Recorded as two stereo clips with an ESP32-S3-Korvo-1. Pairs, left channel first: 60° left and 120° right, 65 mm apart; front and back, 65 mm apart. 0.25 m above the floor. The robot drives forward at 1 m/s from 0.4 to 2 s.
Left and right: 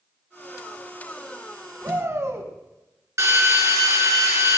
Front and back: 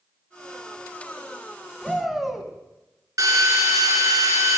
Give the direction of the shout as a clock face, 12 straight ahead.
3 o'clock.